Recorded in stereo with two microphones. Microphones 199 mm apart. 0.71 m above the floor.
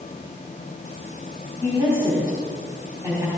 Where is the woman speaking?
15° right (ahead or behind), 5 m.